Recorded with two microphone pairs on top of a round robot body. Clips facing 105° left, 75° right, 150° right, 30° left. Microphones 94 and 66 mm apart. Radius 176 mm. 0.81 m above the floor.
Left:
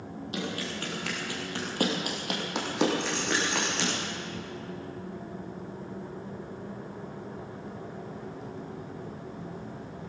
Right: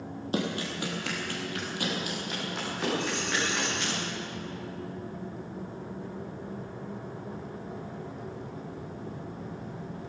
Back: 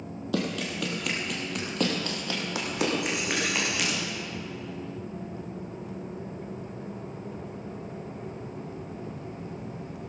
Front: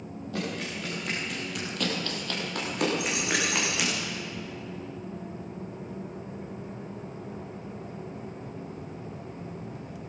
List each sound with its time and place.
0.3 s running footsteps: 130° right, 2 m; by 4.0 s 115° left, 4.5 m
3.0 s a dropped coin: 45° left, 2.5 m